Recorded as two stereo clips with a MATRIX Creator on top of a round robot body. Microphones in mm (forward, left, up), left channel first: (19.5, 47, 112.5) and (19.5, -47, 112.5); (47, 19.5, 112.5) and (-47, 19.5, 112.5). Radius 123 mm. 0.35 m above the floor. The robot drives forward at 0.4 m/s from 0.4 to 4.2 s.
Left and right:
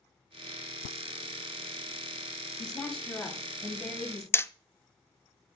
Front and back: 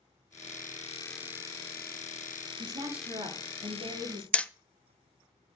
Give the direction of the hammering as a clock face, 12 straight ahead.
10 o'clock.